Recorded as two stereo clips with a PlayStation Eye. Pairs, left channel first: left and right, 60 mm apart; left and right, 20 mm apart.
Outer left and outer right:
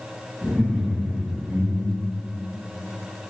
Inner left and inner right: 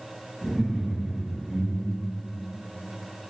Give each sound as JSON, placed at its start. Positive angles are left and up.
{"t": 0.4, "sound": "laughter", "side_deg": 15, "distance_m": 3.0}